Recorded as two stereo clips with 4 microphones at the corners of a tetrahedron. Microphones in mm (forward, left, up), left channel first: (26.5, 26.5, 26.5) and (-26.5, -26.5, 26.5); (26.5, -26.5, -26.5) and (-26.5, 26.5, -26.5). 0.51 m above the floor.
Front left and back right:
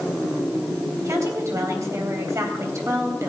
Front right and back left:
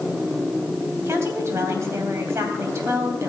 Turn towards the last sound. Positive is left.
turn(degrees=180)